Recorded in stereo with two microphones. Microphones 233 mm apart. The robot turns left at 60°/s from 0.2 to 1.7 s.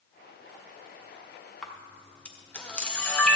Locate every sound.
1.6 s a camera shutter: centre (ahead or behind), 1.0 m; by 3.4 s 5° left (ahead or behind), 1.0 m